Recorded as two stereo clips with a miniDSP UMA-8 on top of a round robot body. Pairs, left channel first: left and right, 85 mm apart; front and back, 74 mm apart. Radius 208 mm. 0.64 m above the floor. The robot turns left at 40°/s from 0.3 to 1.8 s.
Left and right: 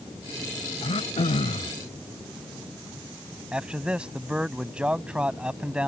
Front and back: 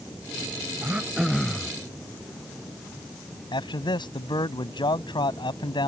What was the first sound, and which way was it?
Throat clearing, 110° left.